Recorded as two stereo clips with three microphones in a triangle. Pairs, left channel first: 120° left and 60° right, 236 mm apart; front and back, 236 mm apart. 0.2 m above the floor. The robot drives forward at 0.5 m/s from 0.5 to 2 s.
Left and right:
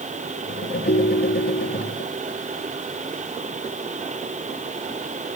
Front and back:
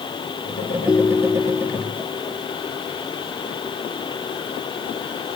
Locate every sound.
0.9 s a ringtone: 75° left; by 1.9 s 80° left